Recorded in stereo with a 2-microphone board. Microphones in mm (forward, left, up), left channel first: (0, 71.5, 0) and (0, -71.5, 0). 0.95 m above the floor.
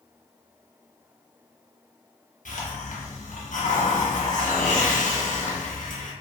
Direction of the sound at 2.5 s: 70° left (ahead or behind).